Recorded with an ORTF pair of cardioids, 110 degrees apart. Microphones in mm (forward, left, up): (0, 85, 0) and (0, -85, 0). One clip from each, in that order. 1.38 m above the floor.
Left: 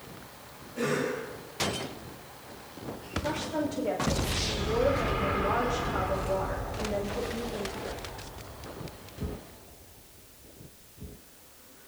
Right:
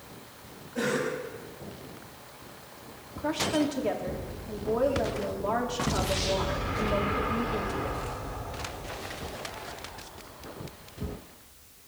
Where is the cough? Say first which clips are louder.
Right 1 dB; 55° right, 6.5 m.